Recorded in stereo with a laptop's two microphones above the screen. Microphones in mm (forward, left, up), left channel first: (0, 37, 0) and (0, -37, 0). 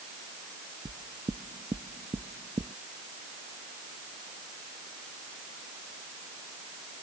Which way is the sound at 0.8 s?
70° right (ahead or behind).